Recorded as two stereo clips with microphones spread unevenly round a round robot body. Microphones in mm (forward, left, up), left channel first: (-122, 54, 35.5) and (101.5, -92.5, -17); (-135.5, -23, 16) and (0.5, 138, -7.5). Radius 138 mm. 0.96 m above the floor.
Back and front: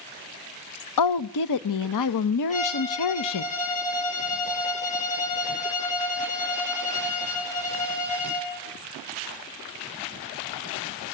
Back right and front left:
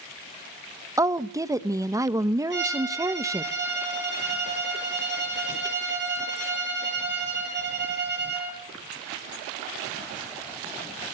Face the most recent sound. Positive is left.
turn(degrees=85)